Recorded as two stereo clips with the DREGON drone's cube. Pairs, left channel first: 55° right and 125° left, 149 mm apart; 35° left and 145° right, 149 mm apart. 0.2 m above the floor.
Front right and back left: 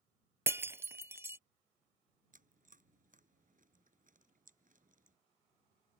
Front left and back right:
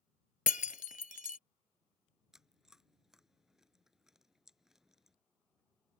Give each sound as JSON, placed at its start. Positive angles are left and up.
{"t": 0.5, "sound": "breaking glass", "azimuth_deg": 50}
{"t": 2.3, "sound": "chewing", "azimuth_deg": 130}